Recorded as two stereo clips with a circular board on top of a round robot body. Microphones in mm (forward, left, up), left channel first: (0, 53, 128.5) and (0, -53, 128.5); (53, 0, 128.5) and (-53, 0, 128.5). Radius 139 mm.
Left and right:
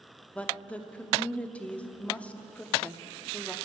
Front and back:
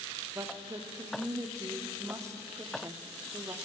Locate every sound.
0.3 s a woman speaking: 155° left, 1.3 m